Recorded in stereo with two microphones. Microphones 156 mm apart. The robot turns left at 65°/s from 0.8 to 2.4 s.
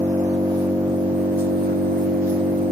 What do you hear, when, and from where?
0.0 s an engine running: 20° right, 6 m; by 2.7 s 125° right, 6 m